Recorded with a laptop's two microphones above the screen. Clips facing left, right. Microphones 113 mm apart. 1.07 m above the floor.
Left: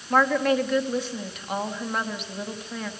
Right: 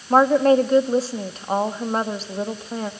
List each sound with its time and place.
0.1 s a woman speaking: 35° right (ahead or behind), 2 m